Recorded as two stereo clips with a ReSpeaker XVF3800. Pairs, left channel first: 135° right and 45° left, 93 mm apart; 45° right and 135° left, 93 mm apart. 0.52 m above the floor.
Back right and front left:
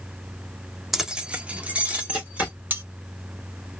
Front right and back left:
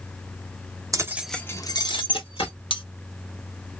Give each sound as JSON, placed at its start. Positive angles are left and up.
{"t": 0.9, "sound": "keys jangling", "azimuth_deg": 130, "distance_m": 0.6}
{"t": 2.7, "sound": "cutlery clinking", "azimuth_deg": -20, "distance_m": 0.7}